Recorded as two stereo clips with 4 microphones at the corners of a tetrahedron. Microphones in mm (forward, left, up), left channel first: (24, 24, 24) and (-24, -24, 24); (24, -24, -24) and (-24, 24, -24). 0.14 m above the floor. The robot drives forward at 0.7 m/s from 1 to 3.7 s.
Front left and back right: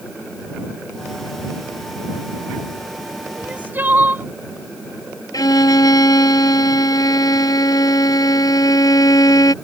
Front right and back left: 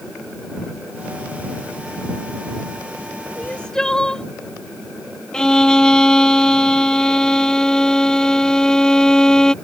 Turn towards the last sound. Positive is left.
turn(degrees=35)